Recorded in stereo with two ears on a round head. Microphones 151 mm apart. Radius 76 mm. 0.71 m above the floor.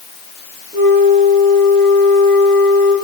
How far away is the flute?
About 4.5 m.